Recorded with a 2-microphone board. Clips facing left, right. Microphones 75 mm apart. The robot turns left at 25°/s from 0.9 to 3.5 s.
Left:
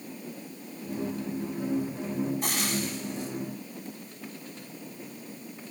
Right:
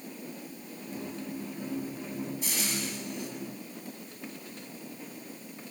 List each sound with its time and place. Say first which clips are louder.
2.4 s frying: left 4 dB; 55° left (ahead or behind), 8 m; by 3.3 s 30° left (ahead or behind), 8 m